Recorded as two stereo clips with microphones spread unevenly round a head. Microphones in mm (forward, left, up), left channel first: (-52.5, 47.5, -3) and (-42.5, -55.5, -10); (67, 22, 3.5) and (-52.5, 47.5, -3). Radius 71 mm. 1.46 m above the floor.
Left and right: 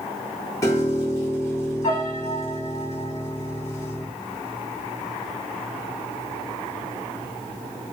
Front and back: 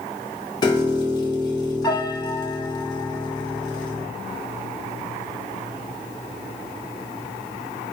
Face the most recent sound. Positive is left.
turn(degrees=35)